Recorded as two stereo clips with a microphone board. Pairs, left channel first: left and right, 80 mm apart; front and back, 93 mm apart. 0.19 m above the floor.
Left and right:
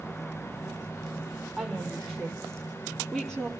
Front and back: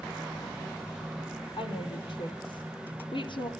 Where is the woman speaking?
10° left, 6 m; by 3.5 s 5° left, 4.5 m.